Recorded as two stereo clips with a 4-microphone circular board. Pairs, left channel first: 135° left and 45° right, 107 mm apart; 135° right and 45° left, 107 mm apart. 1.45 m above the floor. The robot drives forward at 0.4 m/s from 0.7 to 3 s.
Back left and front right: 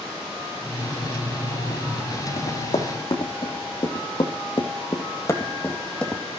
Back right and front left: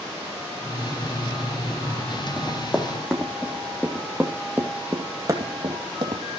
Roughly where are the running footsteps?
Behind left.